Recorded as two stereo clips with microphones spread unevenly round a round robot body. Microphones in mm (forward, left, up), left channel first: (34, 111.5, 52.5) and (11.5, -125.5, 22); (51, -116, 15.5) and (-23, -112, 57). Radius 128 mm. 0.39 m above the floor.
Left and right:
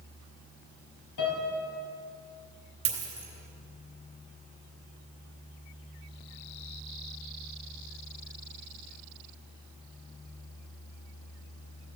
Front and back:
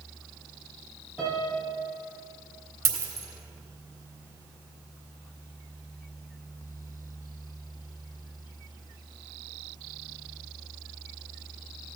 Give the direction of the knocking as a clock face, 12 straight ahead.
I don't hear knocking.